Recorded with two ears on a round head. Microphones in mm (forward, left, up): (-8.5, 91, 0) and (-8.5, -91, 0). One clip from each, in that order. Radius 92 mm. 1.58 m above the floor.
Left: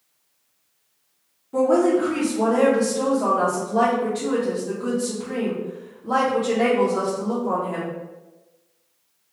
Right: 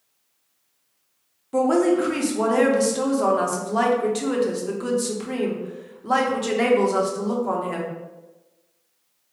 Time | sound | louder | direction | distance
1.5 | a woman speaking | left 1 dB | 65° right (ahead or behind) | 1.1 m